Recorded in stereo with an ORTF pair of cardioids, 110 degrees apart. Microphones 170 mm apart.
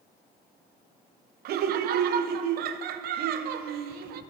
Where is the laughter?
70° right, 0.6 m.